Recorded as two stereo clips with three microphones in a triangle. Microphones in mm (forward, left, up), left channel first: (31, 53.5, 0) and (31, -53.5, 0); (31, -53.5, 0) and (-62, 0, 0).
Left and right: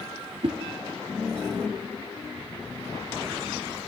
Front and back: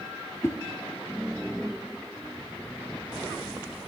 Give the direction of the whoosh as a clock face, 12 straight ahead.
3 o'clock.